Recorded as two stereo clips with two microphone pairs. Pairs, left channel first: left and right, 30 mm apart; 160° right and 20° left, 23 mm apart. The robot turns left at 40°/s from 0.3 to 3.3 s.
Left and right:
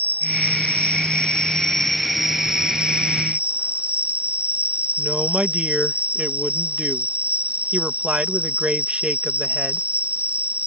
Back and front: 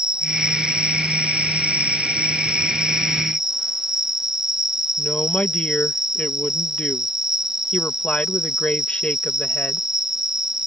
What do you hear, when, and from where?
0.0 s an insect: 70° left; by 10.7 s 50° right
5.0 s a woman speaking: 145° right